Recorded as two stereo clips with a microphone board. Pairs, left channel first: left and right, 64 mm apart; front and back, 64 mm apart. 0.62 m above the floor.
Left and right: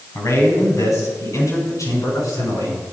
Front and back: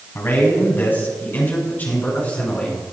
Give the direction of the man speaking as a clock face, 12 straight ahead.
10 o'clock.